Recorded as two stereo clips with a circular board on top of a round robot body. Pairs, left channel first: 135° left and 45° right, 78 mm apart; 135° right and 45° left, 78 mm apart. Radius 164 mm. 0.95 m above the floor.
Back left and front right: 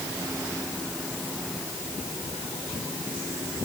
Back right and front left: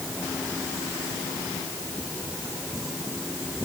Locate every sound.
Only background noise.